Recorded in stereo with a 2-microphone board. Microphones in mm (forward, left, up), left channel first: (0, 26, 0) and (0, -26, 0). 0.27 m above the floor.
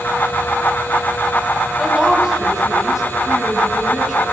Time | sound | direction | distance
1.8 | a woman speaking | 10° right (ahead or behind) | 1.8 m